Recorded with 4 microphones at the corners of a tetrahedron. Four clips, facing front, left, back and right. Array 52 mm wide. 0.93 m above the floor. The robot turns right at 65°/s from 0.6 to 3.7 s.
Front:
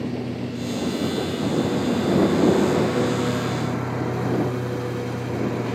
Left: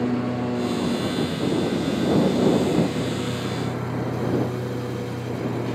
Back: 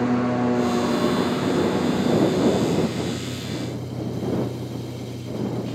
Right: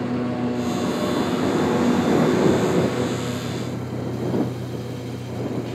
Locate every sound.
0.0 s a lawn mower: straight behind; by 5.8 s 20° left